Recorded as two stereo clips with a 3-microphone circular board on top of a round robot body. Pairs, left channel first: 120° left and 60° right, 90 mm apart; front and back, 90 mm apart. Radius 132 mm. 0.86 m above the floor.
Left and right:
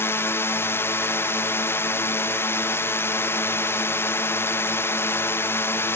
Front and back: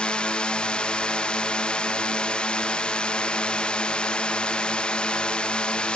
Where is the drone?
75° left.